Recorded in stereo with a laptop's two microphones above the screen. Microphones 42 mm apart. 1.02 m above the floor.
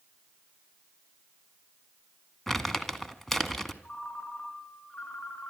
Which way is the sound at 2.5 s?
5° left (ahead or behind).